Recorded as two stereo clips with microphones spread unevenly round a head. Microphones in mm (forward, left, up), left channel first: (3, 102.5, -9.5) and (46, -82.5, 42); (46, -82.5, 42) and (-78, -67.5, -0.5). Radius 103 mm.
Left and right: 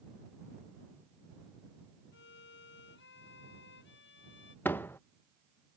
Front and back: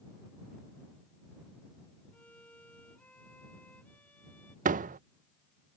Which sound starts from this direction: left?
A violin, at 2.1 s.